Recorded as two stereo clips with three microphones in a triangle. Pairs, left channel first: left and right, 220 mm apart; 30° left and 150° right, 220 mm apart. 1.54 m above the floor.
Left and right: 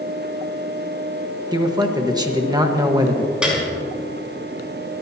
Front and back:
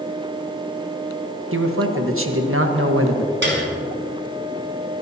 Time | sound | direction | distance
1.5 | a man speaking | 165° right | 1.4 m
3.4 | a piano | 175° right | 4.5 m